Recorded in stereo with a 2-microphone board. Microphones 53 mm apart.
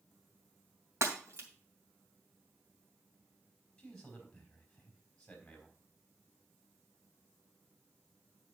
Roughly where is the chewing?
I don't hear chewing.